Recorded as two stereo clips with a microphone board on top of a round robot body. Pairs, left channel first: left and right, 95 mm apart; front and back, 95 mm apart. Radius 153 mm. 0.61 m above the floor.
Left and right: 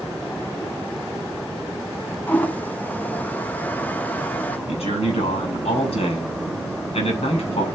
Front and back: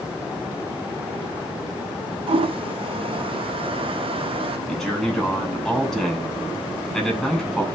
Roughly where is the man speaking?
Left.